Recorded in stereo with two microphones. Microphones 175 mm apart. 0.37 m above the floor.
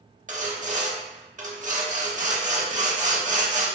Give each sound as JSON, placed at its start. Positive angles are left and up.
{"t": 0.3, "sound": "sawing", "side_deg": -45, "distance_m": 0.7}